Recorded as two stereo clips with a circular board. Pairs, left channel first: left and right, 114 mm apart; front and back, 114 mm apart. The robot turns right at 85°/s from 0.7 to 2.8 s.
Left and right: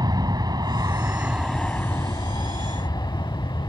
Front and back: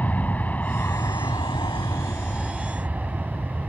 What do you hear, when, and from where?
0.0 s an aircraft: 70° right; by 3.7 s 110° left